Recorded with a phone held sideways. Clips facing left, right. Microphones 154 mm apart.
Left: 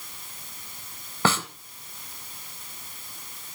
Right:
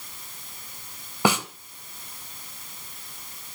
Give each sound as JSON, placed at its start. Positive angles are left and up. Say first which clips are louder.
{"t": 1.2, "sound": "a snare drum", "louder": "right 2 dB", "side_deg": -15, "distance_m": 1.4}